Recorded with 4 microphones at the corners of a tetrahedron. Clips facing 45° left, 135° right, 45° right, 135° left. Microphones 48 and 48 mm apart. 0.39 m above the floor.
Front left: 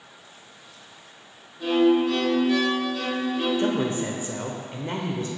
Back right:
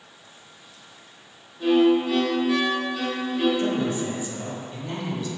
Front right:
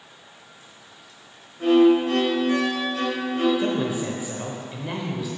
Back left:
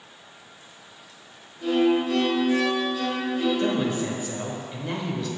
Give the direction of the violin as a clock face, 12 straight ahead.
2 o'clock.